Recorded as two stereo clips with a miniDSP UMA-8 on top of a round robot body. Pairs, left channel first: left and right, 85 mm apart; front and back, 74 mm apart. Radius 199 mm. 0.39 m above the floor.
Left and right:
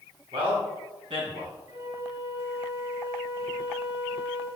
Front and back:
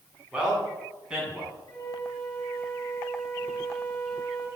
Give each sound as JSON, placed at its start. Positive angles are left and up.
{"t": 0.3, "sound": "a man speaking", "azimuth_deg": -100, "distance_m": 7.0}
{"t": 1.7, "sound": "a flute", "azimuth_deg": -35, "distance_m": 3.0}